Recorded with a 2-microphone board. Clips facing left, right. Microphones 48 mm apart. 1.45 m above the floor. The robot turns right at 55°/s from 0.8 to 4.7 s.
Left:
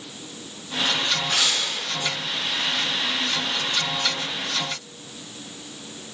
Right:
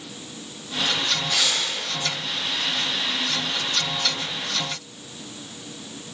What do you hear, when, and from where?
1.3 s tearing paper: 45° left (ahead or behind), 5 m; by 1.6 s 30° left (ahead or behind), 5 m